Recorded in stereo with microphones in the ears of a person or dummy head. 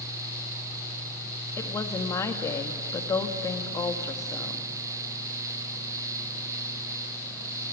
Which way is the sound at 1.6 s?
20° left (ahead or behind).